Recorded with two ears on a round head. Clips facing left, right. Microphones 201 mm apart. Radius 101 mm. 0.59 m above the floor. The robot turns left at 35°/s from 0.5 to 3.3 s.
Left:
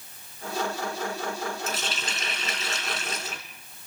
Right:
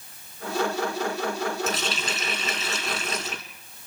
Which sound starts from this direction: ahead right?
A running tap, at 1.7 s.